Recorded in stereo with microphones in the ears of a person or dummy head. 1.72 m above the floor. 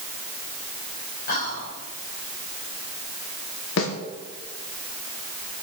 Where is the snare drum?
70° left (ahead or behind), 2.5 m.